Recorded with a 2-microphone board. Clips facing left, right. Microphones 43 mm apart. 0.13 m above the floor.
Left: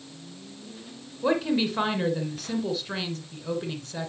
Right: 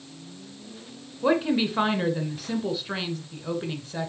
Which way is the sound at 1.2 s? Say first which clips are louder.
Right 2 dB; 15° right (ahead or behind).